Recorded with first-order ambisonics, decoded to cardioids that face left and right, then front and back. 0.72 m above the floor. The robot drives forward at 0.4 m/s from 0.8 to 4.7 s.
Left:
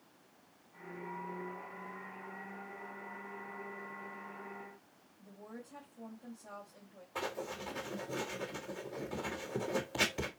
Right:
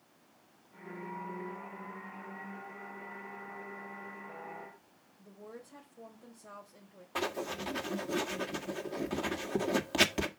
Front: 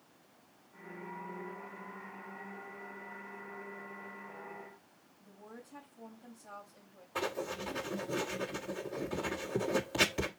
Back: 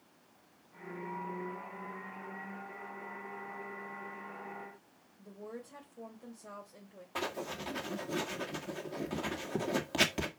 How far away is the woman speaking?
About 2.5 m.